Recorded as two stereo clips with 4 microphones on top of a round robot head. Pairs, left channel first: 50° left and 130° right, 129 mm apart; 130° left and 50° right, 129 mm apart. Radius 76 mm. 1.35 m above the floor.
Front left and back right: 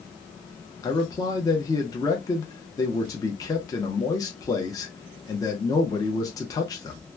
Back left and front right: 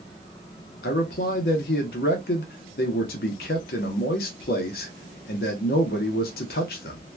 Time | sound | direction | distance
0.8 | a man speaking | 115° left | 0.7 m